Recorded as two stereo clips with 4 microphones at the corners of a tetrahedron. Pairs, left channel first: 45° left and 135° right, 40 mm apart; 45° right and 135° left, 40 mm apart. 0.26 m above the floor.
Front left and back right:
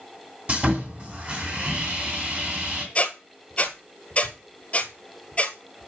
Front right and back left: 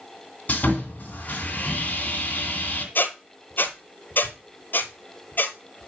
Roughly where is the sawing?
Right.